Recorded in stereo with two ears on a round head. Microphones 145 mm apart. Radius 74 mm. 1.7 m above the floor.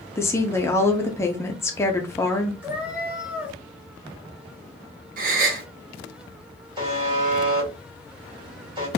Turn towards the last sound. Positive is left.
turn(degrees=-30)  # may be behind; listen again after turning